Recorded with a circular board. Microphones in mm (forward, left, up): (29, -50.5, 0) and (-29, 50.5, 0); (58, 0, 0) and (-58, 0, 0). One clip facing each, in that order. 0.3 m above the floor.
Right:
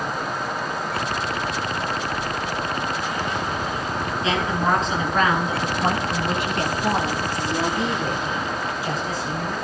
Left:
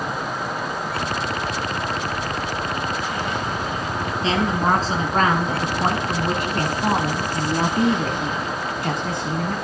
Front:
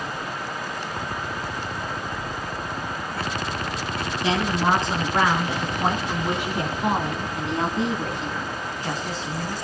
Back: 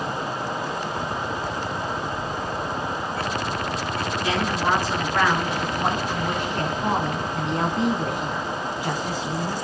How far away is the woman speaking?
About 4.5 m.